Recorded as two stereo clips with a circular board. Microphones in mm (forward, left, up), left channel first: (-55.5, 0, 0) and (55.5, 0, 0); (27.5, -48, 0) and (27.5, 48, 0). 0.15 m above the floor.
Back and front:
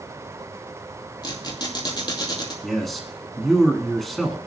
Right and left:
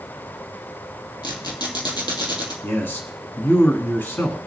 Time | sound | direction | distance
1.2 | a squeak | 130° right | 2 m
2.6 | a man speaking | 90° right | 1.1 m